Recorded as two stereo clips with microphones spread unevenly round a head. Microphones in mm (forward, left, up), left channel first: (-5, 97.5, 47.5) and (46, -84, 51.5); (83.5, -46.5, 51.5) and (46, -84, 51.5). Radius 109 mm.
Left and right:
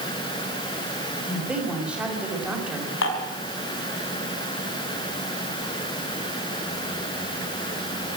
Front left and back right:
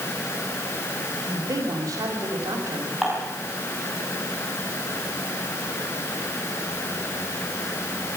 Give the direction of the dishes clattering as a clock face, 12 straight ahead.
7 o'clock.